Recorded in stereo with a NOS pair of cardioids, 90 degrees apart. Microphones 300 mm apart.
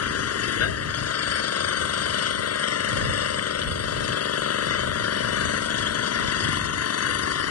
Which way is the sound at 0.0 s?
60° left.